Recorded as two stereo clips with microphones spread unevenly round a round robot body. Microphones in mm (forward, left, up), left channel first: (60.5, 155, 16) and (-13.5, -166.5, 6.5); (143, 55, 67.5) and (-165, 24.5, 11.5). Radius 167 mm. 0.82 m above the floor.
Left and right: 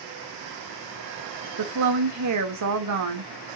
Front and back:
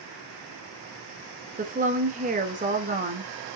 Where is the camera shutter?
I don't hear a camera shutter.